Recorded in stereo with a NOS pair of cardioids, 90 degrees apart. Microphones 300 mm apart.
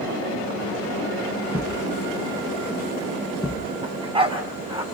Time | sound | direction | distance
1.5 | a thud | straight ahead | 4 m
3.8 | a dog barking | 20° right | 4.5 m